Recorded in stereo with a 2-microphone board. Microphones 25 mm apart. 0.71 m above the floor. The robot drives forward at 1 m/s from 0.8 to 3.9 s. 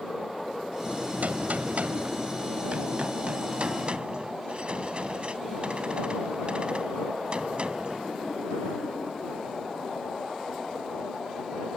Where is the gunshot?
70° right (ahead or behind); by 8.1 s 40° right (ahead or behind).